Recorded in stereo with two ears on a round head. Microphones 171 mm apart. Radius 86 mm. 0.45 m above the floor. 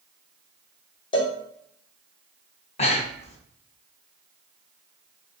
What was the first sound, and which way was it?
A cowbell, 25° left (ahead or behind).